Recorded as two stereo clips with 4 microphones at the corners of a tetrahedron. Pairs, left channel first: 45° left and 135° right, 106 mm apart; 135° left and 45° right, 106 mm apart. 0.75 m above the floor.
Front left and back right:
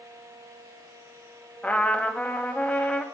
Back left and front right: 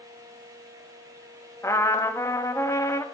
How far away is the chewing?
I don't hear chewing.